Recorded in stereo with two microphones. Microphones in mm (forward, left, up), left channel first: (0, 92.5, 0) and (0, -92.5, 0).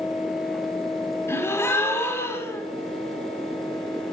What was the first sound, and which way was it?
A gasp, 15° left (ahead or behind).